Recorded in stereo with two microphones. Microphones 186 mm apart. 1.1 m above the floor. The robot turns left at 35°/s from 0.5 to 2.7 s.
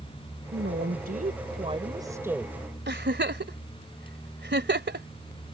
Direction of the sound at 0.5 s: 105° right.